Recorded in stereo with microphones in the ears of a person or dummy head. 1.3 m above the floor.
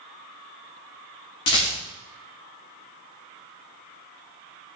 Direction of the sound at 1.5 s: 25° left (ahead or behind).